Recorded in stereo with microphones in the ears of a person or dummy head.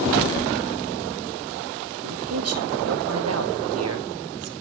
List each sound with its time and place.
2.0 s a man speaking: 85° right, 2.0 m